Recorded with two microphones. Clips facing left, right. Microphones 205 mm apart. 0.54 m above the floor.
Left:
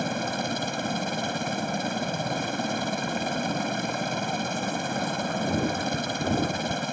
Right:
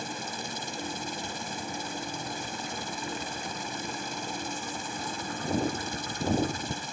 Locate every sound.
0.0 s a helicopter: 60° left (ahead or behind)